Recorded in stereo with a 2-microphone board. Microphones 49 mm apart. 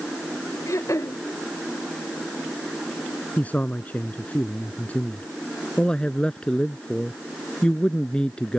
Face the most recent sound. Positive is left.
turn(degrees=20)  # may be behind; listen again after turning